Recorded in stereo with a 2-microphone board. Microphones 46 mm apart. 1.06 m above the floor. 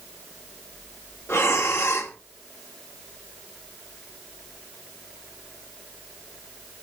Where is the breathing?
70° left (ahead or behind), 1.7 m.